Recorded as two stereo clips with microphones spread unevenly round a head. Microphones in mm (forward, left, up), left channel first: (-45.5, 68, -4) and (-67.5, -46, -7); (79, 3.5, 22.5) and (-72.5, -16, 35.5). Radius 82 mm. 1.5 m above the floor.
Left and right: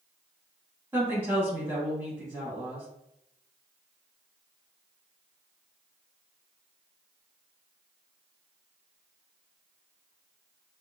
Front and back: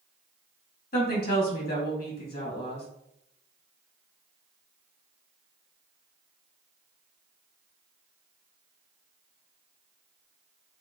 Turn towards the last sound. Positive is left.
turn(degrees=-20)